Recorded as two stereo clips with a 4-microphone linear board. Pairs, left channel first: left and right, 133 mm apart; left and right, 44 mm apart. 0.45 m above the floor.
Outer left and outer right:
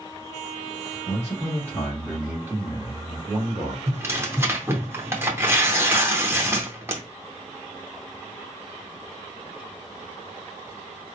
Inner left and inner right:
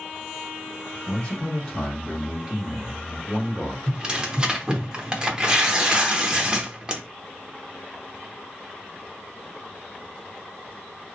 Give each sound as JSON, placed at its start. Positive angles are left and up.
{"t": 1.1, "sound": "a man speaking", "side_deg": 30, "distance_m": 1.2}
{"t": 3.9, "sound": "tearing paper", "side_deg": -20, "distance_m": 0.7}